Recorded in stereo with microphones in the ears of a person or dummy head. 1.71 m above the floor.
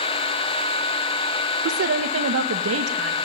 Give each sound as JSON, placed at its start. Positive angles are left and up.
{"t": 1.6, "sound": "a woman speaking", "side_deg": -75, "distance_m": 1.9}